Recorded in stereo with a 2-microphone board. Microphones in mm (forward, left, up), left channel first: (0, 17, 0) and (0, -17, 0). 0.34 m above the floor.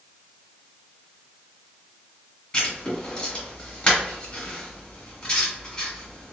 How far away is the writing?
About 2.0 m.